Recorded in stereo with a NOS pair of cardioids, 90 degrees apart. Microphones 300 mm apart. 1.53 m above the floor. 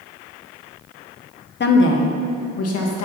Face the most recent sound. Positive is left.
turn(degrees=55)